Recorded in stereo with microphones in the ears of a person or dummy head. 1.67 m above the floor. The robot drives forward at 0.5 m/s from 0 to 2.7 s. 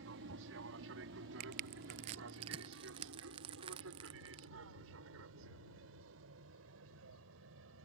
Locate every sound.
0.0 s an aircraft: 70° right (ahead or behind); by 7.8 s 75° right (ahead or behind)
1.4 s crushing: 30° right (ahead or behind); by 4.5 s 25° right (ahead or behind)